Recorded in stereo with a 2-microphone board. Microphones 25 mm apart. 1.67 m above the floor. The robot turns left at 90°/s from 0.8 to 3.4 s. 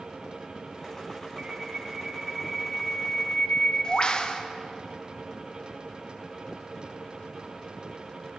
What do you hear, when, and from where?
1.4 s a bird: 75° right, 0.9 m; by 4.4 s 105° left, 0.9 m